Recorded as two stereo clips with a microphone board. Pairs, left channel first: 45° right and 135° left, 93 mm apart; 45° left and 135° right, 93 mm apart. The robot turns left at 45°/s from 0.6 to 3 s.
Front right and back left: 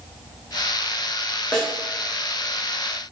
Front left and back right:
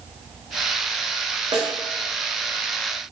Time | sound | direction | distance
1.5 | a snare drum | 125° right | 0.7 m